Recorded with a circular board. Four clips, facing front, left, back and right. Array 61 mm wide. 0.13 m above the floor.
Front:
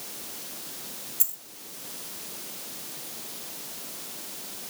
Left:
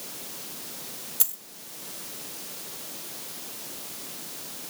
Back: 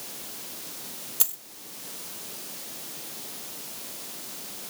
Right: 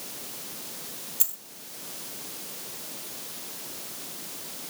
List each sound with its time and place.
1.2 s a dropped coin: 170° left, 1.5 m